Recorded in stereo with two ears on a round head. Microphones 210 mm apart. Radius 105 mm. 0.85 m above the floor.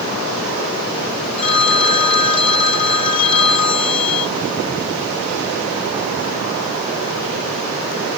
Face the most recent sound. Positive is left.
turn(degrees=75)  # may be behind; listen again after turning